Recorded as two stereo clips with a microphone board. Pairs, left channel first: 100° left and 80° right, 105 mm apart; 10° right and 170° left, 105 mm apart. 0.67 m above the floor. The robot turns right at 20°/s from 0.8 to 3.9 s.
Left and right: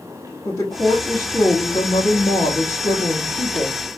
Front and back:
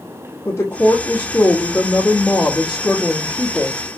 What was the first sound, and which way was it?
A woman speaking, 45° left.